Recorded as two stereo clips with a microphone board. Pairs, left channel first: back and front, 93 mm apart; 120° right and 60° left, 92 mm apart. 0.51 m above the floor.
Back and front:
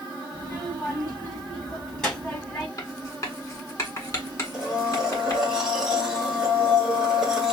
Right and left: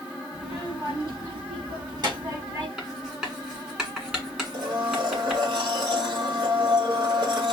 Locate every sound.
0.3 s a child speaking: 95° left, 3.5 m; by 2.7 s 100° left, 1.5 m
2.8 s writing: 140° left, 1.5 m
4.5 s a blender: 85° left, 1.5 m